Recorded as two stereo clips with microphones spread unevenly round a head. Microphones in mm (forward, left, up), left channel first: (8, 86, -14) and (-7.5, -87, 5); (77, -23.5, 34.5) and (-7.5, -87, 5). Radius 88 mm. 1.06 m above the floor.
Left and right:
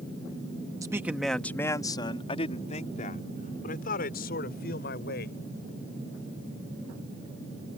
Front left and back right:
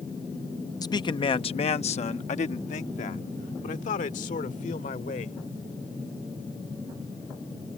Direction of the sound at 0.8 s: 20° right.